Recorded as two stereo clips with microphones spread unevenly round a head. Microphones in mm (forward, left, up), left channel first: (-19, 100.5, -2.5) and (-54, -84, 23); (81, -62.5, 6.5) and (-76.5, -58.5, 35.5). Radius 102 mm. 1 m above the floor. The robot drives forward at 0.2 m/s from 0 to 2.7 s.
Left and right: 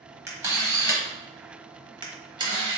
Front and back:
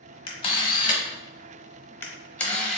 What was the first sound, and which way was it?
A camera shutter, 45° right.